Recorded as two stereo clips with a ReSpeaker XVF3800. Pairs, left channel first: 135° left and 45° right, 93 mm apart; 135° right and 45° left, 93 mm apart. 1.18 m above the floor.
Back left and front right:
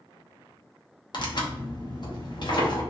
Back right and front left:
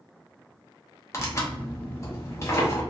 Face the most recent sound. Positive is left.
turn(degrees=170)